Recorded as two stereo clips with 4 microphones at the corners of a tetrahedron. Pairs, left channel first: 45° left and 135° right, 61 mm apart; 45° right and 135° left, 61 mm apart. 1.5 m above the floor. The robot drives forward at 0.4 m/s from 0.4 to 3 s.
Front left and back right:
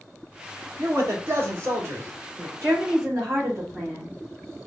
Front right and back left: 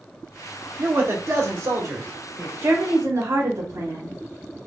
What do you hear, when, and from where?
0.8 s a man speaking: straight behind, 1.5 m
2.6 s a woman speaking: straight behind, 3 m